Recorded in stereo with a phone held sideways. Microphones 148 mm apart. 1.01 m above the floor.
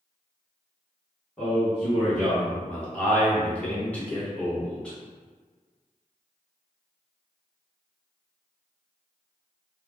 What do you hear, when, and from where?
1.4 s a man speaking: 5° left (ahead or behind), 1.1 m